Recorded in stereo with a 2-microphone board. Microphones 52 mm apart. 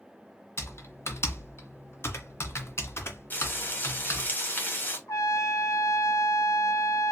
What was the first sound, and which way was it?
Typing on a keyboard, 60° left (ahead or behind).